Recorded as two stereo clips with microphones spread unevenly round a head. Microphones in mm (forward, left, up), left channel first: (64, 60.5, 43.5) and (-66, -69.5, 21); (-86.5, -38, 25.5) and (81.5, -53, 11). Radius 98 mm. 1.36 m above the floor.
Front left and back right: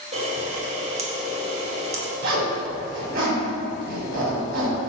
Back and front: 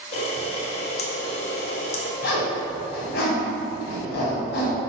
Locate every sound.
0.1 s a camera shutter: 175° left, 0.9 m
2.2 s a zipper: 175° right, 2 m